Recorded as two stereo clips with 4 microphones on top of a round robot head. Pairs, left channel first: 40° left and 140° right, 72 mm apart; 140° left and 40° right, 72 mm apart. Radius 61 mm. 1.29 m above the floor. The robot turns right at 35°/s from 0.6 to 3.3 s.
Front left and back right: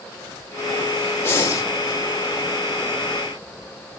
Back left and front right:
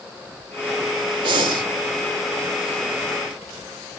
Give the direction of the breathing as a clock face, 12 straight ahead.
1 o'clock.